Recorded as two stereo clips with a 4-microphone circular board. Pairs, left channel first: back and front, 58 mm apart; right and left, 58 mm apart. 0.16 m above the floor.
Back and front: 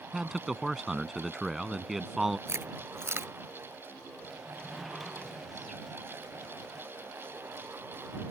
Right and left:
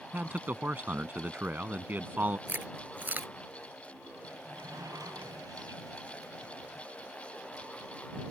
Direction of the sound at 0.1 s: 85° left.